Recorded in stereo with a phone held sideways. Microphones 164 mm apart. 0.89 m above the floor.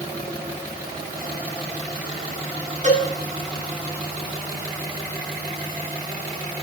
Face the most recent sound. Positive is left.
turn(degrees=-50)  # may be behind; listen again after turning